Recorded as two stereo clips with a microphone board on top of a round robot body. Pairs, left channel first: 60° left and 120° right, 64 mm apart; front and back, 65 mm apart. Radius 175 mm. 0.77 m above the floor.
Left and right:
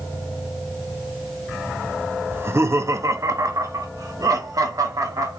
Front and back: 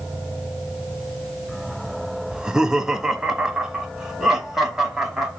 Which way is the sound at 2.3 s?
110° right.